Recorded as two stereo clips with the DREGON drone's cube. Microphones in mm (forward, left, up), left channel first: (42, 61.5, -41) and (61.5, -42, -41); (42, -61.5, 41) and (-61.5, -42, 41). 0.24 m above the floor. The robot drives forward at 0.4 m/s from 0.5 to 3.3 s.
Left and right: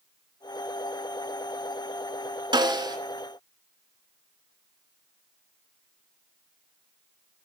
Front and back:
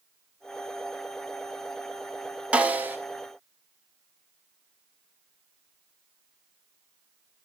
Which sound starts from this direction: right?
A snare drum, at 2.5 s.